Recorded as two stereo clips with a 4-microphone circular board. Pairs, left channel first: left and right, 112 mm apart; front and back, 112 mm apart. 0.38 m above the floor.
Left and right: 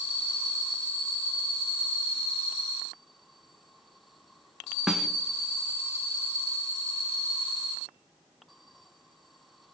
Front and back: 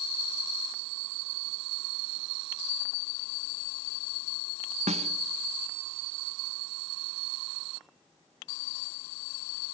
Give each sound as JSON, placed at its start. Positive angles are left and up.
{"t": 4.9, "sound": "a snare drum", "azimuth_deg": -175, "distance_m": 1.2}